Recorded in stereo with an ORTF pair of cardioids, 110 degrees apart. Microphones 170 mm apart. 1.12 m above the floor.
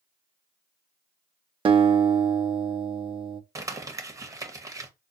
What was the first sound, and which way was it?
A guitar, 30° right.